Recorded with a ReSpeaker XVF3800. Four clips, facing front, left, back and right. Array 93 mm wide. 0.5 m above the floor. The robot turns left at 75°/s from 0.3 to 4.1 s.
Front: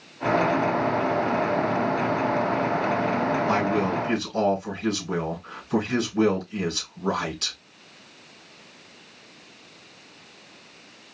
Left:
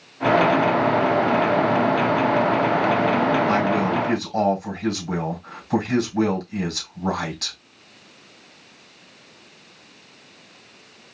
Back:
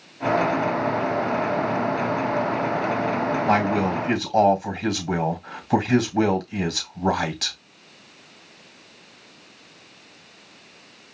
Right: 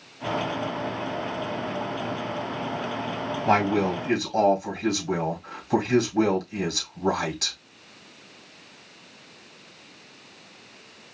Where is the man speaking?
125° right, 2.5 m; by 7.6 s 175° right, 2.5 m.